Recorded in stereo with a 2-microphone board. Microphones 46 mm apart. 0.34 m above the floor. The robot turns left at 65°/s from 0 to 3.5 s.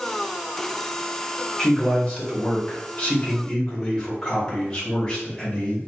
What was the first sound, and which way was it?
A man speaking, 10° left (ahead or behind).